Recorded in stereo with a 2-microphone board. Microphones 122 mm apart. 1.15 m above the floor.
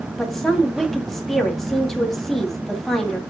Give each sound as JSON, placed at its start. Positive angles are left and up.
{"t": 0.2, "sound": "a woman speaking", "side_deg": 5, "distance_m": 2.5}